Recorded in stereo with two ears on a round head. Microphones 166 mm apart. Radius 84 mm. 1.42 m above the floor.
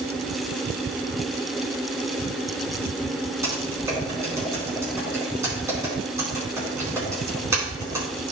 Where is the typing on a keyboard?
15° right (ahead or behind), 4 m.